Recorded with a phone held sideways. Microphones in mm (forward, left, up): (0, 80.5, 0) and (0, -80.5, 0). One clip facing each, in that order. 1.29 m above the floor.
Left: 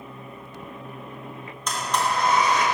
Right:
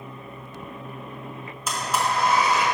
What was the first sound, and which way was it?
A blender, 5° right (ahead or behind).